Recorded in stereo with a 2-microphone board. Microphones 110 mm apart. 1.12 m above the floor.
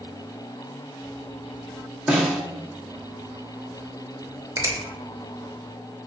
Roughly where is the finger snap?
Right.